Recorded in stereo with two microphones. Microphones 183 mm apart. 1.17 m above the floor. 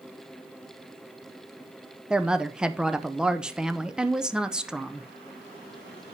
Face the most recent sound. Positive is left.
turn(degrees=-5)  # may be behind; listen again after turning